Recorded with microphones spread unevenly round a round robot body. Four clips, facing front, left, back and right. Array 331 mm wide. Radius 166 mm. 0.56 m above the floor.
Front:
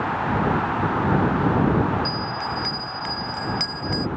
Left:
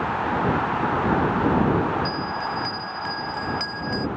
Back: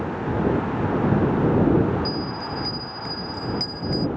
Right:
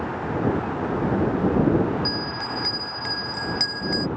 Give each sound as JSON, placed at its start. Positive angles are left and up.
{"t": 2.0, "sound": "a bell", "azimuth_deg": -55}